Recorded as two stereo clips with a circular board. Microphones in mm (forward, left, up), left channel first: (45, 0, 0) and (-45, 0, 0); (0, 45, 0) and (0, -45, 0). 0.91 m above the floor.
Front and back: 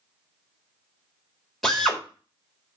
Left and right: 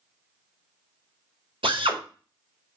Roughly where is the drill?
Right.